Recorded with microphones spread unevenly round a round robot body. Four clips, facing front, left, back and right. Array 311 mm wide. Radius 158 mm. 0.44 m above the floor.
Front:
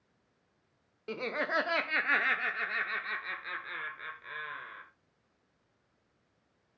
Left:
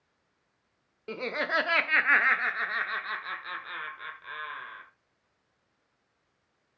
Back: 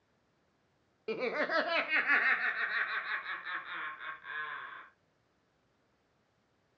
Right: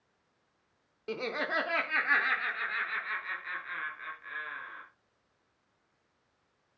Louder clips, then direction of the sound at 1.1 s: Left 3 dB, back 1 dB; 145° right.